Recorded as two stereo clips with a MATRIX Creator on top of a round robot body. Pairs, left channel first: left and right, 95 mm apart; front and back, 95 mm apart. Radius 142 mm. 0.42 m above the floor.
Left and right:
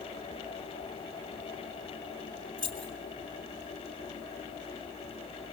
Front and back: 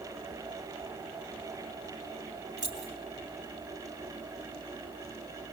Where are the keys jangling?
135° right, 4 m.